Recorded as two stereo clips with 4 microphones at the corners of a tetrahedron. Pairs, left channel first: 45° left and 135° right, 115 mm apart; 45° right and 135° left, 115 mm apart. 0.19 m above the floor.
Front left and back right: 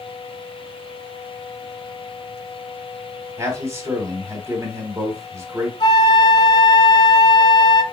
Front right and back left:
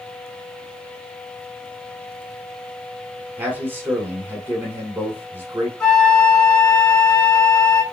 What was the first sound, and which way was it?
A man speaking, 170° right.